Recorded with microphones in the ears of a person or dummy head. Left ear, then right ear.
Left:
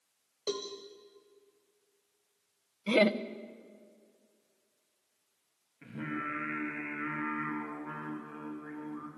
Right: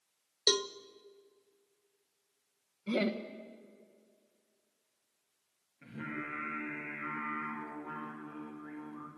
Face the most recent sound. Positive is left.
turn(degrees=10)  # may be behind; listen again after turning